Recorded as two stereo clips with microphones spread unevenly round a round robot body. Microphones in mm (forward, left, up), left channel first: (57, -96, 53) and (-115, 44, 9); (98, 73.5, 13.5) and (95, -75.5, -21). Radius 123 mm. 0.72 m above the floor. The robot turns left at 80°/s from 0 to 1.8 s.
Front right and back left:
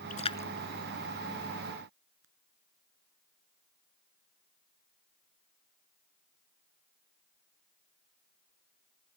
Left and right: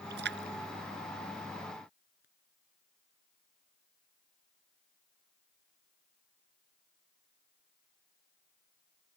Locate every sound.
0.1 s a splash: 90° right; by 2.2 s 130° left